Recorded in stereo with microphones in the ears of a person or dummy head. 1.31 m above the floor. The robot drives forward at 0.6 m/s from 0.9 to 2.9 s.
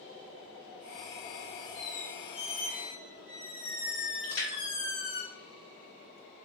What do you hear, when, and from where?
1.8 s a squeak: 40° left (ahead or behind), 1.3 m
4.2 s a splash: 70° left (ahead or behind), 1.2 m